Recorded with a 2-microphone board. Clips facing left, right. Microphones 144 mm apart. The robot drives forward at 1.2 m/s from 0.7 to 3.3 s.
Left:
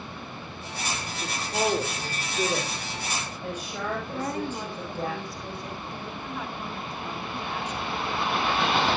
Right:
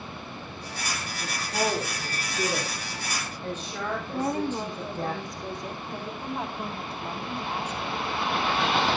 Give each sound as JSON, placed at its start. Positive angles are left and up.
{"t": 1.2, "sound": "a woman speaking", "side_deg": 25, "distance_m": 1.6}
{"t": 4.1, "sound": "a woman speaking", "side_deg": -20, "distance_m": 1.8}
{"t": 6.2, "sound": "a woman speaking", "side_deg": -35, "distance_m": 3.5}